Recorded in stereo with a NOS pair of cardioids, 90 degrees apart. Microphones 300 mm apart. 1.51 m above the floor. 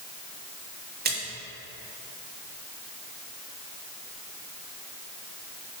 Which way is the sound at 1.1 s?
30° right.